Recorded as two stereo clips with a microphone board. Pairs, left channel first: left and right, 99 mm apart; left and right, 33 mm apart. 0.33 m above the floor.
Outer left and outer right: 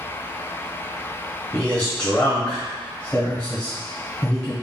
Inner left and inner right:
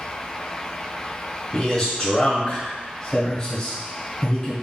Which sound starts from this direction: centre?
A man speaking, at 1.5 s.